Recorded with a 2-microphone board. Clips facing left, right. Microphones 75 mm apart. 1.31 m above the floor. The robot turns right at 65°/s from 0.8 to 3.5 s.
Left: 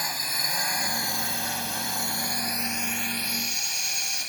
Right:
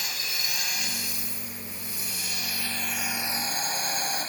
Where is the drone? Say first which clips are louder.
Left 3 dB; 35° left (ahead or behind); by 4.3 s 40° right (ahead or behind).